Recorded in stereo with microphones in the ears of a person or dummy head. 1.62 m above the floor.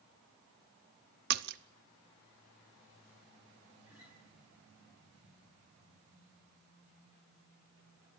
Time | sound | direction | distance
1.3 | a splash | 55° right (ahead or behind) | 0.6 m
3.9 | a guitar | 10° right (ahead or behind) | 7.5 m